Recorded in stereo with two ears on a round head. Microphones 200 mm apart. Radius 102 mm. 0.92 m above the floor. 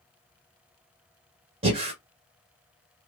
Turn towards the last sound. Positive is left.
turn(degrees=-25)  # may be behind; listen again after turning